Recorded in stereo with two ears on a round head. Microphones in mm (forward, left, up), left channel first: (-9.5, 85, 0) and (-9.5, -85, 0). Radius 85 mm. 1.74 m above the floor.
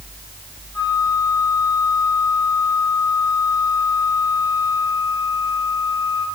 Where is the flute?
15° left (ahead or behind), 5.5 m.